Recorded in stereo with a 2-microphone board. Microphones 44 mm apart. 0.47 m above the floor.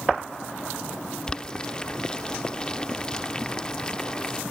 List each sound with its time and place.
1.3 s boiling: 20° left (ahead or behind)